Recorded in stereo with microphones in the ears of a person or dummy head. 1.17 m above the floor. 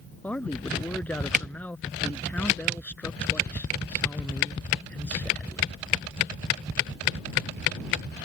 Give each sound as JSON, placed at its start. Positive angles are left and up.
{"t": 0.2, "sound": "a man speaking", "side_deg": 10}